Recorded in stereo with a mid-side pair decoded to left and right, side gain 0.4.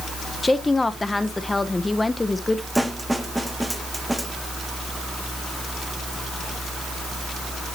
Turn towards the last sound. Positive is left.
turn(degrees=-5)